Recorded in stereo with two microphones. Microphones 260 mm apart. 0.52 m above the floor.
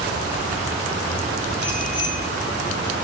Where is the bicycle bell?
40° right (ahead or behind), 8 m.